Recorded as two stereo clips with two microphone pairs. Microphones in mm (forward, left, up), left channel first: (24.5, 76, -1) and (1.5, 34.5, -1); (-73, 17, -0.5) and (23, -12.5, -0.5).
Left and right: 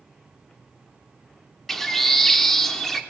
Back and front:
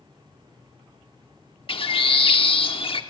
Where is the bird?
140° left, 1.0 m.